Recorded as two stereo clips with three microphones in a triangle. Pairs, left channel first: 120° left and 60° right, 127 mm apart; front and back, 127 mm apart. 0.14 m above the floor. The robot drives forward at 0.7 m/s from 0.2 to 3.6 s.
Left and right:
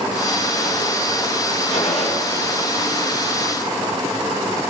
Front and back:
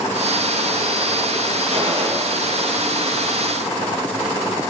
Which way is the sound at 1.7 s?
145° left.